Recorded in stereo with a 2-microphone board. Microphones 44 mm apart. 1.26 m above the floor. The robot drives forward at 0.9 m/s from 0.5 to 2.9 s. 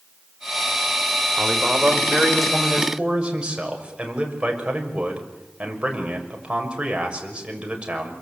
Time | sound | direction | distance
1.4 | a man speaking | 30° right (ahead or behind) | 5 m